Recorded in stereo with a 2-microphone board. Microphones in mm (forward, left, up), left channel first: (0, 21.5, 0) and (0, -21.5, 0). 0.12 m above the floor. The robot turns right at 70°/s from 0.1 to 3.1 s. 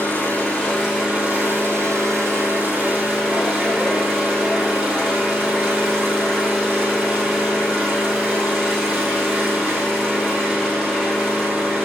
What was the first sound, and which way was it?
An engine running, 125° left.